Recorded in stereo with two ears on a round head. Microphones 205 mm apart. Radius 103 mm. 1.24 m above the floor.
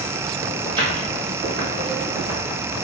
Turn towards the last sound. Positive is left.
turn(degrees=-10)  # may be behind; listen again after turning